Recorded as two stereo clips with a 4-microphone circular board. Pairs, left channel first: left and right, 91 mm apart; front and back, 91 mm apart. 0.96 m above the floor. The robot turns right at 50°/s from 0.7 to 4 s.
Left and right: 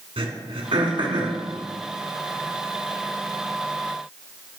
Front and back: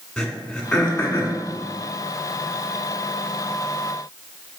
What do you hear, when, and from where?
0.2 s throat clearing: 85° right, 1.6 m; by 1.4 s 55° right, 1.6 m